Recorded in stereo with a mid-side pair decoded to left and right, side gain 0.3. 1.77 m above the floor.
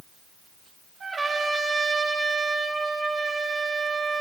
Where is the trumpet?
60° right, 2.0 m.